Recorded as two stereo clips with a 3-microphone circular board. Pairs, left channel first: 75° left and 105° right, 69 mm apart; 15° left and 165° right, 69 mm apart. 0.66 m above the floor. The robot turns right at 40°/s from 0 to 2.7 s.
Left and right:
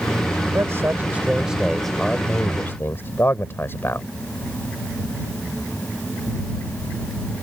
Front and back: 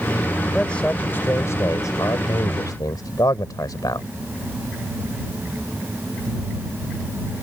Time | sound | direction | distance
0.5 | a man speaking | 65° right | ?